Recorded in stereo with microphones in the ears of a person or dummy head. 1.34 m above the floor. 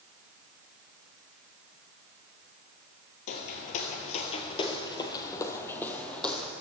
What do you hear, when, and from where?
3.3 s footsteps: 50° left (ahead or behind), 2 m; by 6.5 s 5° left (ahead or behind), 3 m